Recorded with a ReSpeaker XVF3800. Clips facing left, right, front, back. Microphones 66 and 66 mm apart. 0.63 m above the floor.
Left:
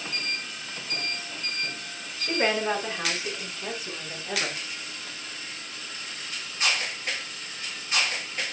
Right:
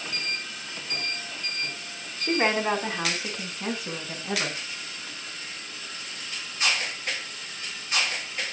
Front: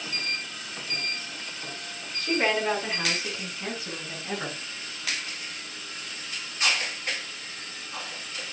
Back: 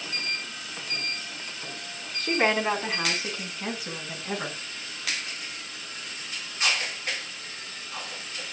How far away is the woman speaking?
About 5 m.